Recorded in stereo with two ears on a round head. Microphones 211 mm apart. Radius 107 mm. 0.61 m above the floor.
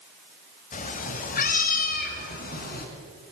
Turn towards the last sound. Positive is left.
turn(degrees=40)  # may be behind; listen again after turning